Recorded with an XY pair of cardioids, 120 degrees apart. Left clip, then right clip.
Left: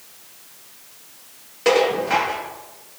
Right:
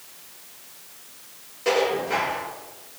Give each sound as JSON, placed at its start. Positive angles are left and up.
{"t": 1.6, "sound": "dishes clattering", "azimuth_deg": 55, "distance_m": 2.5}